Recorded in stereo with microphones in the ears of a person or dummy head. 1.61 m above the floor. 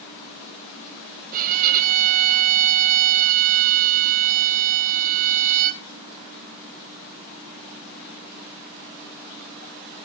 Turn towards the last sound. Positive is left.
turn(degrees=-45)  # may be behind; listen again after turning